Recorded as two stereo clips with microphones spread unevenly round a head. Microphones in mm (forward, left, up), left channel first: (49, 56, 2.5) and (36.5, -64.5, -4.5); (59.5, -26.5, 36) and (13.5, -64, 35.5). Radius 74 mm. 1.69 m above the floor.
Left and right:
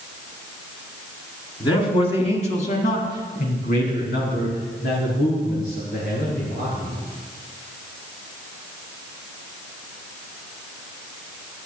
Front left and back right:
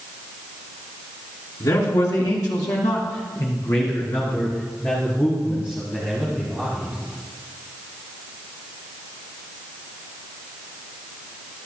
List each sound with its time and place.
1.6 s a man speaking: 35° left, 3.5 m; by 7.0 s 125° left, 6.5 m